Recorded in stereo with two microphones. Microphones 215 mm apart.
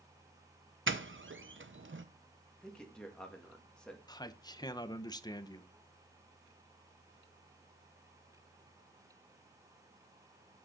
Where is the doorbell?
65° right (ahead or behind), 0.8 m.